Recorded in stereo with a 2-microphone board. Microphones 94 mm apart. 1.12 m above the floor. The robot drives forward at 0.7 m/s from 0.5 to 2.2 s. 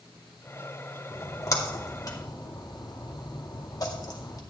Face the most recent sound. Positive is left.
turn(degrees=45)  # may be behind; listen again after turning